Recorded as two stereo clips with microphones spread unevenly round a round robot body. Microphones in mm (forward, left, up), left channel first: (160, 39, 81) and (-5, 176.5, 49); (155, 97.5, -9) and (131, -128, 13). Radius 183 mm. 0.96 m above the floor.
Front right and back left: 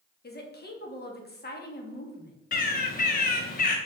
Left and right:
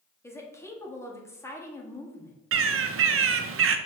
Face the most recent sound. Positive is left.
turn(degrees=-90)